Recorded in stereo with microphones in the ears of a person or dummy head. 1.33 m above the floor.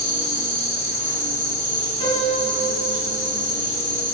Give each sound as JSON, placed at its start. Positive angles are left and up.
{"t": 0.0, "sound": "an insect", "side_deg": 70, "distance_m": 3.5}
{"t": 2.0, "sound": "a piano", "side_deg": 30, "distance_m": 3.0}